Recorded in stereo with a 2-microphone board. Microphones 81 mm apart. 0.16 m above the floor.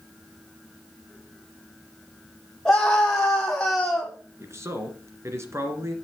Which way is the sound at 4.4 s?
35° right (ahead or behind).